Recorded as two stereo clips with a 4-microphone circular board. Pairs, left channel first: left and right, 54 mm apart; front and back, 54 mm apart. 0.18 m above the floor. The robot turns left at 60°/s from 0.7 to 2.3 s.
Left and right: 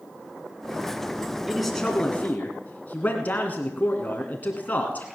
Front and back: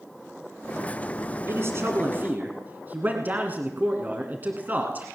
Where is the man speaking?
170° right, 2 m; by 5.0 s 140° left, 2 m.